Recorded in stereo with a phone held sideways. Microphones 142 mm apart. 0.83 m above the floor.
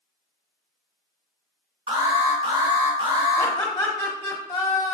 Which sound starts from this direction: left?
Laughter, at 3.4 s.